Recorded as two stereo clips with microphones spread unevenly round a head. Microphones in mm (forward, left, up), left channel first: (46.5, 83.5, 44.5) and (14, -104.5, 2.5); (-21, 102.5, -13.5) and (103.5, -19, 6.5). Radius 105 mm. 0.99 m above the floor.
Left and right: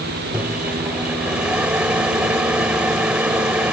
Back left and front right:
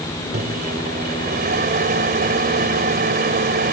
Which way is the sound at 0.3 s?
15° right.